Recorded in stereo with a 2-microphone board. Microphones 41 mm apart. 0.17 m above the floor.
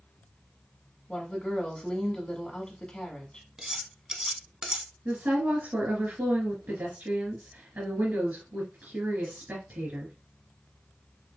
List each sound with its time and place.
1.1 s a woman speaking: 20° left (ahead or behind), 1.5 m
3.6 s cutlery clinking: 20° right (ahead or behind), 0.8 m
5.0 s a woman speaking: 55° right (ahead or behind), 2 m